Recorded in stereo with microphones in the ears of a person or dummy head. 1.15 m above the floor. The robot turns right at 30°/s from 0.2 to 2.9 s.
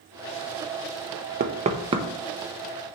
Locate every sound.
1.4 s knocking: 40° right (ahead or behind), 1.1 m; by 2.1 s 20° right (ahead or behind), 1.1 m